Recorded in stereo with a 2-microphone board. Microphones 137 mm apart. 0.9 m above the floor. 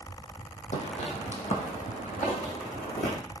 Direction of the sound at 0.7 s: 50° left (ahead or behind).